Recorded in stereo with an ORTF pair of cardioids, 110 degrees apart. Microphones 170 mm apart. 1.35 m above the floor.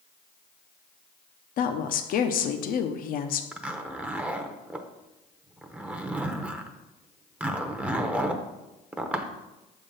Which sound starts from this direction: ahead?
A zipper, at 3.5 s.